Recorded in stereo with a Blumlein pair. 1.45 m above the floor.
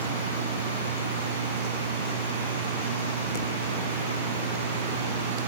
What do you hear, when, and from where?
0.0 s a machine running: 65° right